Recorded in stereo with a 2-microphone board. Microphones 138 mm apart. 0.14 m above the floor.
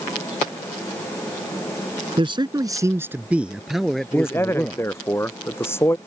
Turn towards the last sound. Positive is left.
turn(degrees=15)  # may be behind; listen again after turning